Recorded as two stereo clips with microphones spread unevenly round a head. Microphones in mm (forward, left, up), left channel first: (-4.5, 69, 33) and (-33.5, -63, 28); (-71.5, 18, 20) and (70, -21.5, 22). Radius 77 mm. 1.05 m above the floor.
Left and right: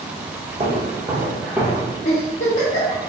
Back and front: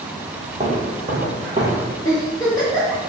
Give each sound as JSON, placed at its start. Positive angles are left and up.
{"t": 0.6, "sound": "footsteps", "azimuth_deg": -55, "distance_m": 1.3}
{"t": 2.0, "sound": "a giggle", "azimuth_deg": 100, "distance_m": 0.9}